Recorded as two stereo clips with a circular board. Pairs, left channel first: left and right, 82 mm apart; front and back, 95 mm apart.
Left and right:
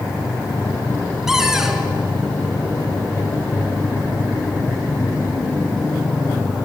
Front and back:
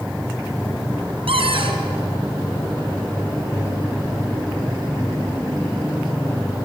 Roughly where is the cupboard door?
Behind.